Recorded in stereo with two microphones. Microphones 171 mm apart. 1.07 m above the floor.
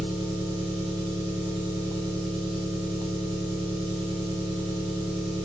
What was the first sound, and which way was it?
An engine running, 30° right (ahead or behind).